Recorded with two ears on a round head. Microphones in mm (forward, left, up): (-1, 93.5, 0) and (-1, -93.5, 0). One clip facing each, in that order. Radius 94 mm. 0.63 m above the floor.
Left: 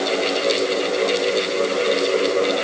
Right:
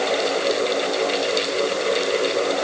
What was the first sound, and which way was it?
Only background noise.